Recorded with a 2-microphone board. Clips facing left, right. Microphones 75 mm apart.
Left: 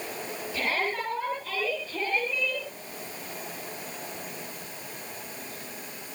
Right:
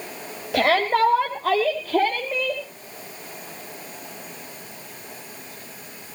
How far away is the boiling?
I don't hear boiling.